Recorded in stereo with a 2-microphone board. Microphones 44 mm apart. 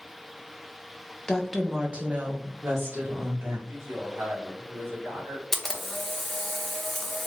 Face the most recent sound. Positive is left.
turn(degrees=5)  # may be behind; listen again after turning